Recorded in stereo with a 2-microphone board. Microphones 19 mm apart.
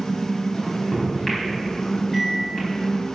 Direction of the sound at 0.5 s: 15° left (ahead or behind).